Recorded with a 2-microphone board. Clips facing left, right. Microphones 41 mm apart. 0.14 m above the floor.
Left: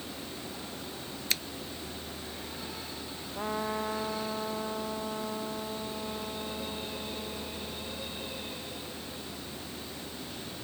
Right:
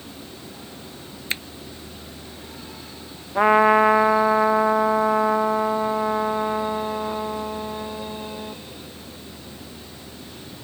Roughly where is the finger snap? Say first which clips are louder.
Right 5 dB; right.